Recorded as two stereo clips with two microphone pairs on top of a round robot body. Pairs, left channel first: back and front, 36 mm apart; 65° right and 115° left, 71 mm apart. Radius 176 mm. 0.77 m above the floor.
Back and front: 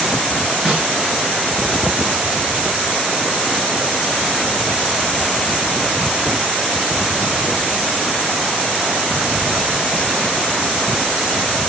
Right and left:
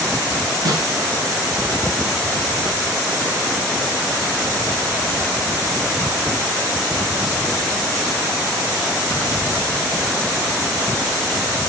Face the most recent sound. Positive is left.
turn(degrees=85)